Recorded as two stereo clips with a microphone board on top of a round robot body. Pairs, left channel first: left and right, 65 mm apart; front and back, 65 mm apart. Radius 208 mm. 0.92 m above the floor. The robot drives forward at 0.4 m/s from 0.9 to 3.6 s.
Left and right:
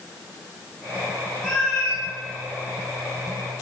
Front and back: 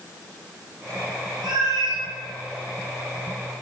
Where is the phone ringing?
I don't hear a phone ringing.